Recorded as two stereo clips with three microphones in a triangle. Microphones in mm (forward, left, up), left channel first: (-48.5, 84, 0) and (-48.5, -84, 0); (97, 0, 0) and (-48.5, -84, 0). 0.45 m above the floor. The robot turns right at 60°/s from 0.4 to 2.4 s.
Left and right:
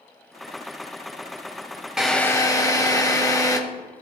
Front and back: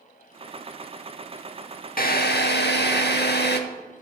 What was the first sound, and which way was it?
A drill, 5° right.